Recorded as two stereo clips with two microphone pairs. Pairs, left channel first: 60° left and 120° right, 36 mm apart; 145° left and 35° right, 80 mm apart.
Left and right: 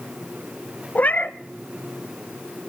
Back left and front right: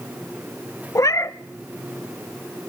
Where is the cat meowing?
95° left, 0.6 m.